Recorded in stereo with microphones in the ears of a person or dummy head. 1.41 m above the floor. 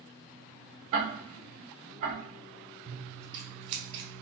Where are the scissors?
30° right (ahead or behind), 0.5 m.